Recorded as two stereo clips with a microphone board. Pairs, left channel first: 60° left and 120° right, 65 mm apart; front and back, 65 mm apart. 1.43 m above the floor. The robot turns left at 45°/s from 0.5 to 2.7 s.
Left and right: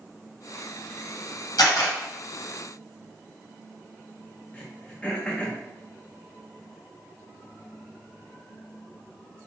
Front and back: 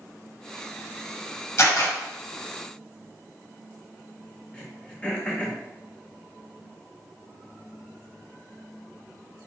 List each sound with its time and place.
1.6 s a camera shutter: 50° left, 1.1 m; by 1.9 s 30° left, 1.1 m
4.5 s throat clearing: 45° left, 0.6 m